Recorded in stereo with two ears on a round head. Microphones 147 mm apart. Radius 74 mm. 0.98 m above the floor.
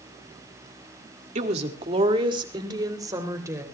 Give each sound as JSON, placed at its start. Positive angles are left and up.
{"t": 1.4, "sound": "a woman speaking", "side_deg": -45, "distance_m": 2.0}